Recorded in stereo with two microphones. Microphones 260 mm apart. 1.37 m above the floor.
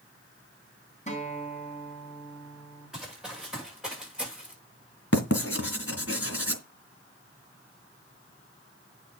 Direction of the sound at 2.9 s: Centre (ahead or behind).